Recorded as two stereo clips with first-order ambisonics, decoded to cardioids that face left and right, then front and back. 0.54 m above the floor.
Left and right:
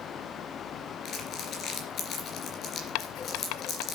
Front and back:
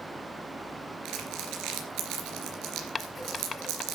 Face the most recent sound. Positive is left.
turn(degrees=75)